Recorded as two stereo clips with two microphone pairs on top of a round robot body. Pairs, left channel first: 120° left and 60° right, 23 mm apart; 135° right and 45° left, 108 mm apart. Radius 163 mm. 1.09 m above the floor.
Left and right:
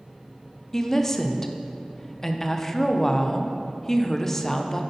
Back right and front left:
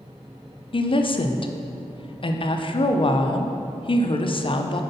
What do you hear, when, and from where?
0.7 s a woman speaking: 165° right, 0.8 m